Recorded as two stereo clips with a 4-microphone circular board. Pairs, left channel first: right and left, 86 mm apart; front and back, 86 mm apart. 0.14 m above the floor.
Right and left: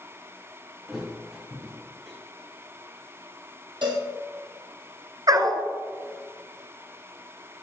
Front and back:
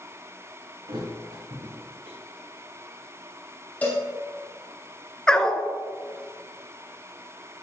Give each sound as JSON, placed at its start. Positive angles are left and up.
{"t": 0.9, "sound": "a thud", "azimuth_deg": 175, "distance_m": 4.0}
{"t": 3.8, "sound": "a cowbell", "azimuth_deg": 75, "distance_m": 2.5}
{"t": 5.3, "sound": "a dog barking", "azimuth_deg": 80, "distance_m": 0.9}